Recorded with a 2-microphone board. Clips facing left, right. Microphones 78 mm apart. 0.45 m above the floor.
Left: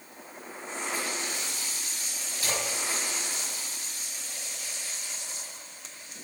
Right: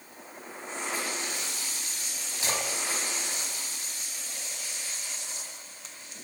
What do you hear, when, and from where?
2.4 s a splash: 25° right (ahead or behind), 1.2 m